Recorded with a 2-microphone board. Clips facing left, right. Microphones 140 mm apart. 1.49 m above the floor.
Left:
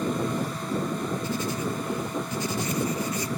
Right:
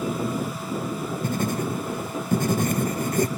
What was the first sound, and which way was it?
Writing, 55° right (ahead or behind).